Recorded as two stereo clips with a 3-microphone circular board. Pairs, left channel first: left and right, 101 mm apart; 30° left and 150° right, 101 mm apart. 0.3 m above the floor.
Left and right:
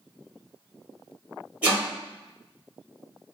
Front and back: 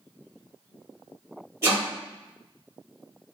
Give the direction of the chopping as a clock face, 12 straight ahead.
5 o'clock.